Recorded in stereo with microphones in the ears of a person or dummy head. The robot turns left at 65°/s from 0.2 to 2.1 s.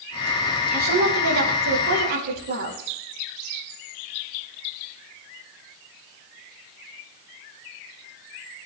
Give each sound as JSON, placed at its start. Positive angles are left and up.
{"t": 0.7, "sound": "a woman speaking", "azimuth_deg": -30, "distance_m": 5.5}